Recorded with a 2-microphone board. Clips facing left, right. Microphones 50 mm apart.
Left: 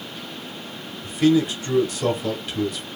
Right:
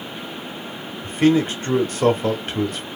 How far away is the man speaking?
About 0.9 m.